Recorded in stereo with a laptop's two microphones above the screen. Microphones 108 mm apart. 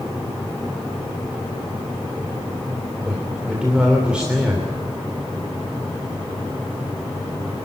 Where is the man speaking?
10° right (ahead or behind), 3 m.